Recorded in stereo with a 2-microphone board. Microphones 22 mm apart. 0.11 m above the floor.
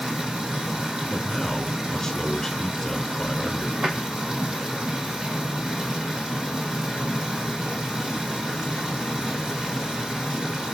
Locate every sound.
0.0 s running water: 30° right (ahead or behind), 3.5 m
1.1 s a man speaking: 20° left (ahead or behind), 1.1 m
3.8 s a drawer: 40° right (ahead or behind), 3 m